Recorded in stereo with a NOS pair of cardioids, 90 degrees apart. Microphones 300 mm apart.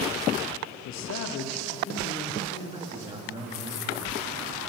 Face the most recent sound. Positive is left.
turn(degrees=-15)